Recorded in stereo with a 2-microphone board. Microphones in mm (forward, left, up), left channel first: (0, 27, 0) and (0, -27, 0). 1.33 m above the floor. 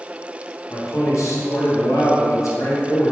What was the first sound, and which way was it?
A man speaking, 65° left (ahead or behind).